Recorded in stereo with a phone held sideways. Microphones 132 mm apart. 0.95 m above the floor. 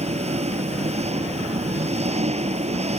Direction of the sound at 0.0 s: 55° right (ahead or behind).